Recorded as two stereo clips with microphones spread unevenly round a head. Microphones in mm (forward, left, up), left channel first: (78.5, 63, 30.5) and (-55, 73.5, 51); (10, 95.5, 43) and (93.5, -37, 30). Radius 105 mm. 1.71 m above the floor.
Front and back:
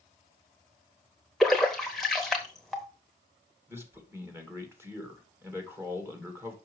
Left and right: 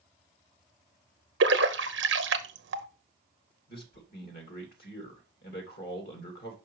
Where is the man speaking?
105° left, 2 m.